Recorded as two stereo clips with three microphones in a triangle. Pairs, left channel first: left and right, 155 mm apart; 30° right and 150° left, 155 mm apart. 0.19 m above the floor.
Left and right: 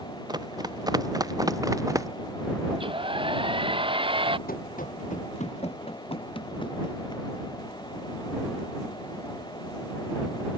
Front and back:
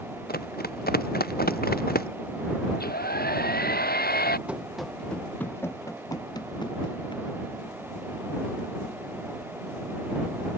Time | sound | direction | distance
0.3 | running footsteps | 25° right | ?
2.7 | a hair dryer | 35° right | ?
4.5 | running footsteps | 65° left | ?